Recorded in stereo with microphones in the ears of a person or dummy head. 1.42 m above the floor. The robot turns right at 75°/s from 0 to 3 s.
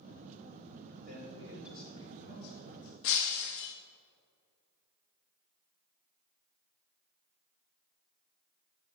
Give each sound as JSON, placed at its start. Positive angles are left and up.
{"t": 1.0, "sound": "a man speaking", "azimuth_deg": -50, "distance_m": 6.5}
{"t": 3.0, "sound": "breaking glass", "side_deg": 65, "distance_m": 1.1}